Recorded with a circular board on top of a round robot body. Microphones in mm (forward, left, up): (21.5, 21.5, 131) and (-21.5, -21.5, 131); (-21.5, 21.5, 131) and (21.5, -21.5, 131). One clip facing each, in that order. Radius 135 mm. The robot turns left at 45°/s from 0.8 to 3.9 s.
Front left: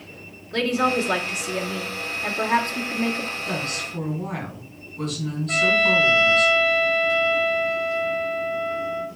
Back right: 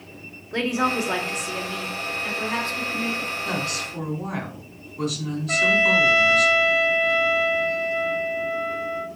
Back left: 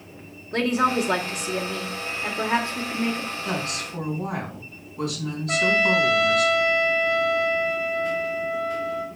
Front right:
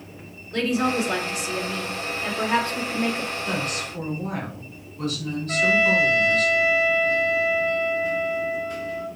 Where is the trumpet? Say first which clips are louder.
Even, front right 1 dB; 150° left, 2 m.